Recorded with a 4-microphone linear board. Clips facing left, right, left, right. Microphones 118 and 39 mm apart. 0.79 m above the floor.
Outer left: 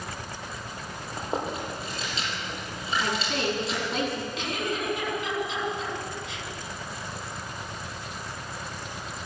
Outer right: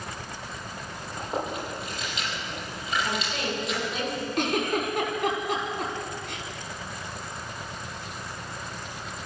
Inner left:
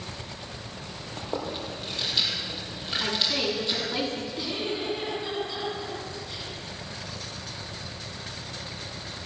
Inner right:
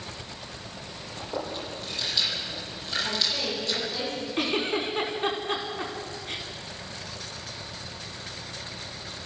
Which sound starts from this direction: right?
A giggle, at 4.4 s.